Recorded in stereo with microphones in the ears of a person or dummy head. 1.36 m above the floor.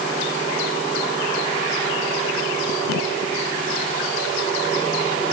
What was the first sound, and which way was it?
Only background noise.